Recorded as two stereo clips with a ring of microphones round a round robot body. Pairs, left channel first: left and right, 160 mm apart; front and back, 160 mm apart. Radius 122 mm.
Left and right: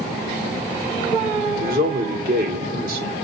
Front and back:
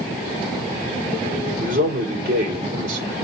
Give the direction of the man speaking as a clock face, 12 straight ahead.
4 o'clock.